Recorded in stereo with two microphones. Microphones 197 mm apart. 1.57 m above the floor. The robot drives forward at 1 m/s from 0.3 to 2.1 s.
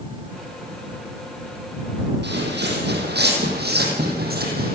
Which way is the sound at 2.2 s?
65° right (ahead or behind).